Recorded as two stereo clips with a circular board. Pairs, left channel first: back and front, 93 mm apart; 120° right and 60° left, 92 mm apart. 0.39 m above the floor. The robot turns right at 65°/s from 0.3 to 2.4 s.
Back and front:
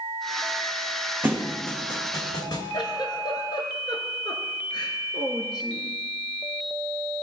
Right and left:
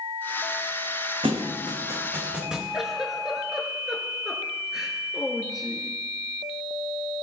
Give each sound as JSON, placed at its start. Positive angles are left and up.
{"t": 1.2, "sound": "a thud", "azimuth_deg": 65, "distance_m": 1.1}
{"t": 2.7, "sound": "a giggle", "azimuth_deg": 145, "distance_m": 1.2}